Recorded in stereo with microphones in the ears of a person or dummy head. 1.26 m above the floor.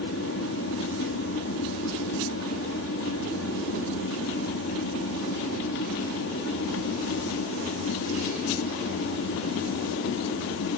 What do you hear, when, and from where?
0.0 s an aircraft: 60° left (ahead or behind)